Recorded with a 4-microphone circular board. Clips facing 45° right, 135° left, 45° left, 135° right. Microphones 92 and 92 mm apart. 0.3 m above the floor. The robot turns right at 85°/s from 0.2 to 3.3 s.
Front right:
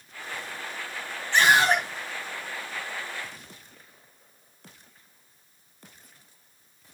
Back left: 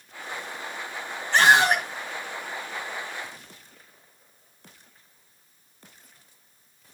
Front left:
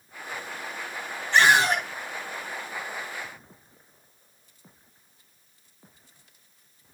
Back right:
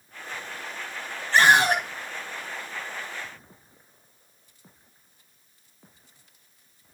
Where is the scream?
Straight behind, 2.5 m; by 1.8 s 135° right, 2.5 m.